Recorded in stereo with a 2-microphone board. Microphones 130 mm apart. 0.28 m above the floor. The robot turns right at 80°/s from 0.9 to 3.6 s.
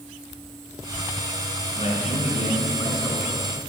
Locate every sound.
1.8 s a man speaking: 45° left, 2 m; by 3.3 s 170° left, 2 m